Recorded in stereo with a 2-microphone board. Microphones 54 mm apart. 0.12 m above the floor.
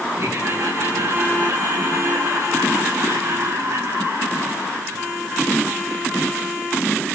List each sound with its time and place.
0.2 s laughter: 80° right, 7 m; by 6.1 s 45° right (ahead or behind), 5 m